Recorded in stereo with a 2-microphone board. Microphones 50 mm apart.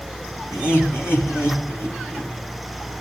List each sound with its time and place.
0.5 s laughter: 65° left (ahead or behind), 4.5 m; by 2.3 s 55° left (ahead or behind), 4.5 m